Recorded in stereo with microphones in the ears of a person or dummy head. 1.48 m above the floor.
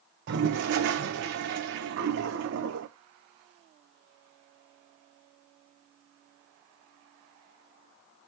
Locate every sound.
0.3 s a toilet flushing: 55° right (ahead or behind), 0.9 m